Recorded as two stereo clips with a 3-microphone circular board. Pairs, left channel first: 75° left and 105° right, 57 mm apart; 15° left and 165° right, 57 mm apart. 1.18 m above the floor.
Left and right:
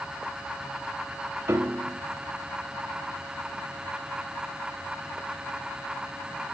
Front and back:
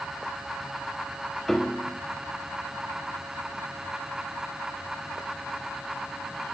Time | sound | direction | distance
1.5 | a piano | 70° right | 1.2 m